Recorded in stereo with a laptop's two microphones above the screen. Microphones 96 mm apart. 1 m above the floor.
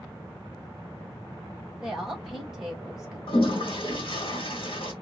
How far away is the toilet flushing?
About 1.5 m.